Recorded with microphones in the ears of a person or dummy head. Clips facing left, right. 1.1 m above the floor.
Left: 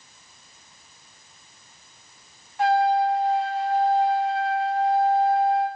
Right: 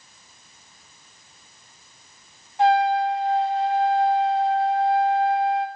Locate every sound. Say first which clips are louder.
2.6 s a trumpet: right 1 dB; 25° right (ahead or behind), 2.5 m